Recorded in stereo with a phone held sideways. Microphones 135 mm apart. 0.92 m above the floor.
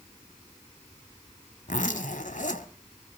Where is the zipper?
70° left (ahead or behind), 1.8 m.